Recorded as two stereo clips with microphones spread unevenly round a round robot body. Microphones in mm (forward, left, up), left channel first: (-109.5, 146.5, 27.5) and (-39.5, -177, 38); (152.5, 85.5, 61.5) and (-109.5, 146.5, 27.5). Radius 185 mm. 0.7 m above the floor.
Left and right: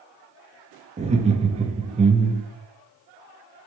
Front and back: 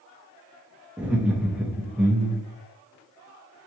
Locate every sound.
1.0 s laughter: 130° right, 0.5 m